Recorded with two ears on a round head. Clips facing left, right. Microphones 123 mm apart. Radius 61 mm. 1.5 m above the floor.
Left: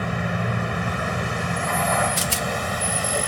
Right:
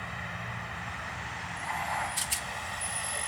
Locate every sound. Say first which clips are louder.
0.0 s a vehicle: left 14 dB; 75° left (ahead or behind)
2.2 s a rattle: left 13 dB; 70° left (ahead or behind)